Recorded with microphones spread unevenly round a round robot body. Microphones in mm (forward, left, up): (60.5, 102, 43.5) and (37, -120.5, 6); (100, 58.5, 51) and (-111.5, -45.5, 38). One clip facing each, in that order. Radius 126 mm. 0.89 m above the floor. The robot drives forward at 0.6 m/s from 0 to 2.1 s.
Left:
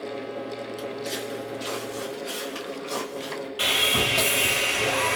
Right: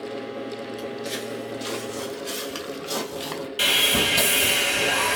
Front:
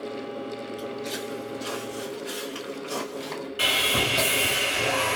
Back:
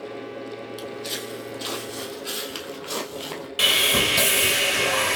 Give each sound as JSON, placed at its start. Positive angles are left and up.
{"t": 0.8, "sound": "footsteps", "azimuth_deg": 160, "distance_m": 1.2}
{"t": 3.6, "sound": "sawing", "azimuth_deg": -145, "distance_m": 1.5}